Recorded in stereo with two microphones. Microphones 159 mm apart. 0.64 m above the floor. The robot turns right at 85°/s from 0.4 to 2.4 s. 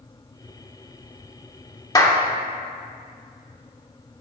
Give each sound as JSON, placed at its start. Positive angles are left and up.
{"t": 1.9, "sound": "a clap", "side_deg": 25, "distance_m": 1.0}